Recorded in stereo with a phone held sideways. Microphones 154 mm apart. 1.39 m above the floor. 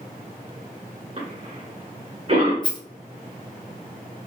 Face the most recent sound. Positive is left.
turn(degrees=30)  # may be behind; listen again after turning